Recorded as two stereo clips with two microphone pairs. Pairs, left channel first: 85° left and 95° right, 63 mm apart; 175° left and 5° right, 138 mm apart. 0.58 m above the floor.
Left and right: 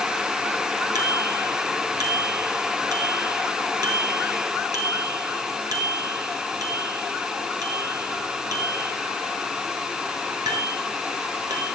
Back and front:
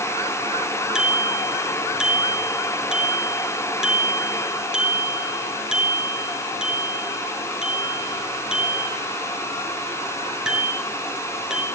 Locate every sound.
0.9 s a bicycle bell: 90° right, 6.5 m